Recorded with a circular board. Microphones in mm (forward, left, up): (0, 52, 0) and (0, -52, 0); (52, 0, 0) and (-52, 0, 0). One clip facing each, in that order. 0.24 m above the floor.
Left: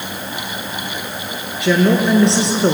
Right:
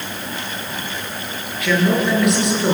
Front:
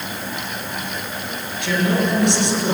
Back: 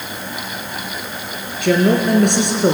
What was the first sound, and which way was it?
A woman speaking, 150° left.